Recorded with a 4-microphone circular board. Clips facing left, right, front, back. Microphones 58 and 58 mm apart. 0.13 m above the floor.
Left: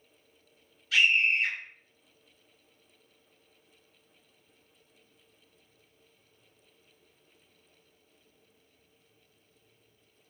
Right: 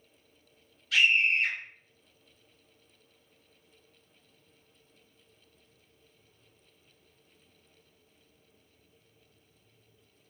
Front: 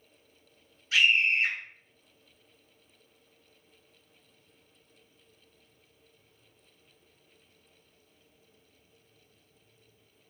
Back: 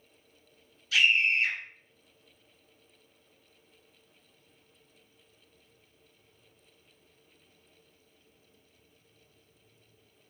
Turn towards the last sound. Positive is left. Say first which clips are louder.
# even, front 1 dB
turn(degrees=5)